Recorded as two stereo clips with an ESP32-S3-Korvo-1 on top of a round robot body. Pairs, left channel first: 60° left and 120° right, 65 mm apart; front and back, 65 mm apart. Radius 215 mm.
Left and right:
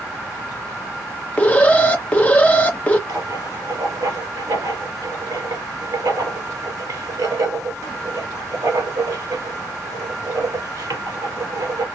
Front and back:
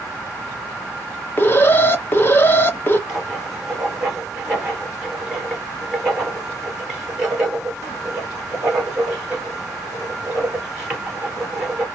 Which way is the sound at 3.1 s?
100° right.